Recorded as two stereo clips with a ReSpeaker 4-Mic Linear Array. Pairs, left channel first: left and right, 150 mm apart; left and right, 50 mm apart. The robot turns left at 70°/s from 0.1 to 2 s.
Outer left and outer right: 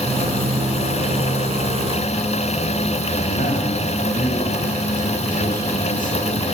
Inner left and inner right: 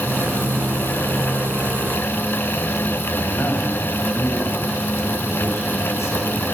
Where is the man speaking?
65° left (ahead or behind), 6.5 m.